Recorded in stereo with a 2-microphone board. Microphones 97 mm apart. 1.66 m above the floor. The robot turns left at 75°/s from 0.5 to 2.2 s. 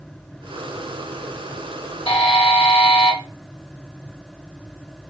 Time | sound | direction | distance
2.1 | a buzzer | 70° left (ahead or behind) | 0.8 m